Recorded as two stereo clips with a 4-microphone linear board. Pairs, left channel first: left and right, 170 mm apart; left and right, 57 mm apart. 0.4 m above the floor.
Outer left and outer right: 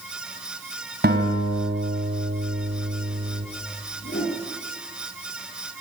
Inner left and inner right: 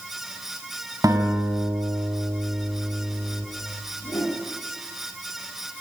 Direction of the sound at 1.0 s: 70° right (ahead or behind).